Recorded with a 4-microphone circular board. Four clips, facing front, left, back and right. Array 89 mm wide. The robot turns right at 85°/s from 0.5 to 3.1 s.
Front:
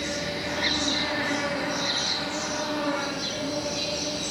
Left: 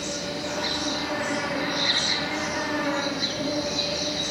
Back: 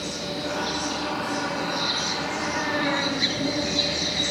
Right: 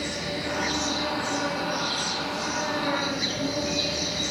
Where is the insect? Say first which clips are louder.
Even, even; 35° right, 3 m; by 4.3 s 175° right, 3 m.